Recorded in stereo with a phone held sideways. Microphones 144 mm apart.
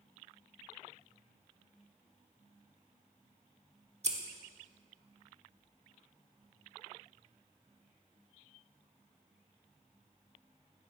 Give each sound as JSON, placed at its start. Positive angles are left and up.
{"t": 4.0, "sound": "scissors", "side_deg": -50, "distance_m": 1.3}